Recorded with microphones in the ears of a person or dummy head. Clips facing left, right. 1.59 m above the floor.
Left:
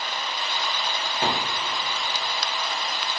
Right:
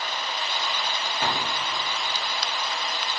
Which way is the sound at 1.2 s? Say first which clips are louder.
Left 2 dB; 25° left (ahead or behind).